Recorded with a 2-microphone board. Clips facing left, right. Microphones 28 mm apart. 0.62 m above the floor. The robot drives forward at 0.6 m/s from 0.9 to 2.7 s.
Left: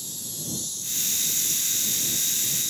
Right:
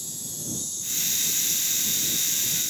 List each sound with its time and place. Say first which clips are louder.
0.0 s an insect: left 1 dB; 60° left (ahead or behind), 6 m; by 2.7 s 70° left (ahead or behind), 5.5 m